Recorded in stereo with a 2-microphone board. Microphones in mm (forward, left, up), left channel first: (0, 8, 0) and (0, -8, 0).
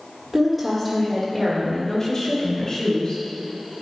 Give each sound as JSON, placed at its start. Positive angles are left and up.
{"t": 0.3, "sound": "a woman speaking", "side_deg": -15, "distance_m": 1.4}